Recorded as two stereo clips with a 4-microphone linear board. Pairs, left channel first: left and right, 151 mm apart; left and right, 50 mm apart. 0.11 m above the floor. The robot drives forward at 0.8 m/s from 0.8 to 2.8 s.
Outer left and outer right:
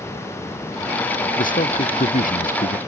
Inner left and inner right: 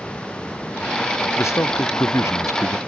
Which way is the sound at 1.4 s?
65° left (ahead or behind).